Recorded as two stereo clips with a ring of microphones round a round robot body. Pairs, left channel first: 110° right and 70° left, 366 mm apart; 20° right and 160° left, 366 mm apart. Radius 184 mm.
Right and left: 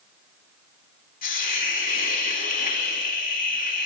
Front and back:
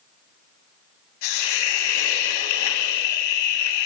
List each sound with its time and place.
1.2 s a hiss: 45° right, 0.8 m